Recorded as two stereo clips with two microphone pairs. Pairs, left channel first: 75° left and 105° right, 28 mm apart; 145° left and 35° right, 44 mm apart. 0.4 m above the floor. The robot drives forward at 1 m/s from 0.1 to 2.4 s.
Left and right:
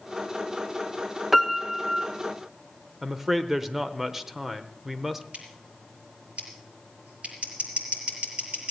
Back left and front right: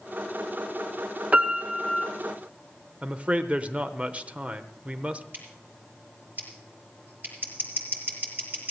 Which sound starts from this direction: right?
Scissors, at 5.3 s.